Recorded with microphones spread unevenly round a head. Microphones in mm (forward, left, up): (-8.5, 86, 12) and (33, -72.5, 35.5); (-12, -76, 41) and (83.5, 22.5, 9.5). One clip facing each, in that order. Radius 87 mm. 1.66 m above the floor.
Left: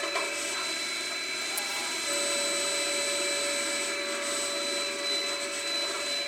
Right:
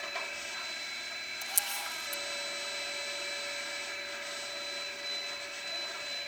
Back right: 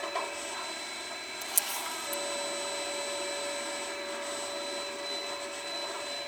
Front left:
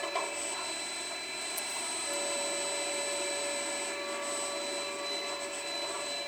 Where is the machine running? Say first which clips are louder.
Left 9 dB, even; 135° left.